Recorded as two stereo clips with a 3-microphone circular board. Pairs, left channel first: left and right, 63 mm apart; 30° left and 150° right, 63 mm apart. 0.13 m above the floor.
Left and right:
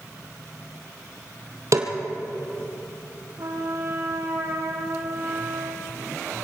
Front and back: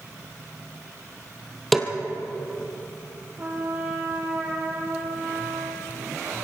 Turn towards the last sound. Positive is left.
turn(degrees=-100)